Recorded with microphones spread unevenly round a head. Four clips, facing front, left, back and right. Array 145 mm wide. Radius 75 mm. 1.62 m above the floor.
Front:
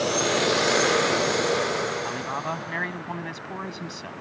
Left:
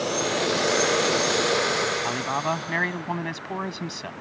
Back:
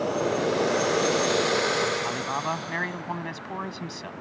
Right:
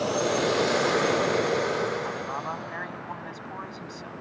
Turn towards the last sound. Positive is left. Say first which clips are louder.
# left 5 dB, back 1 dB
turn(degrees=95)